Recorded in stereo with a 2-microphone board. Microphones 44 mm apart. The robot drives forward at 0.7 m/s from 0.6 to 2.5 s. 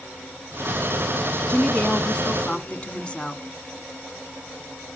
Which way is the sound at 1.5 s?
20° left (ahead or behind).